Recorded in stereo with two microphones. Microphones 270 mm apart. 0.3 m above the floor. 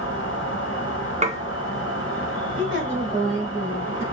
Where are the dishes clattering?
25° right (ahead or behind), 0.7 m.